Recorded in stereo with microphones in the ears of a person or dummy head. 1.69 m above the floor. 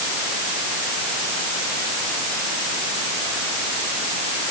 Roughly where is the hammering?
I don't hear hammering.